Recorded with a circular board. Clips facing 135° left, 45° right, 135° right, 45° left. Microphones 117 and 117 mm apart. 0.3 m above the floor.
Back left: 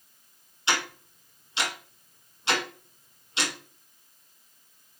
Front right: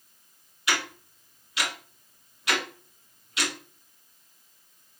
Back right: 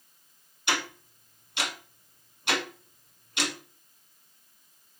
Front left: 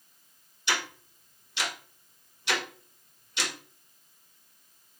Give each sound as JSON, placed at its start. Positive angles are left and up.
{"t": 0.7, "sound": "ticking", "azimuth_deg": -165, "distance_m": 1.3}